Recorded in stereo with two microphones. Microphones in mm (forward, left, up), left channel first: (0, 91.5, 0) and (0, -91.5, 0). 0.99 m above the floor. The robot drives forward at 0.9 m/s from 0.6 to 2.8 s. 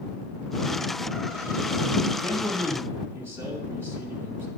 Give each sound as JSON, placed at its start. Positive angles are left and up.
{"t": 2.2, "sound": "a man speaking", "side_deg": -15, "distance_m": 1.8}